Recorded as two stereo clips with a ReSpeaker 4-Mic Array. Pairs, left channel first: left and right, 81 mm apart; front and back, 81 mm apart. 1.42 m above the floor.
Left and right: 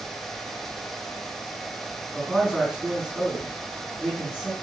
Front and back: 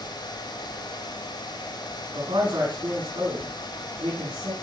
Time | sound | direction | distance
2.1 | a man speaking | 175° right | 6 m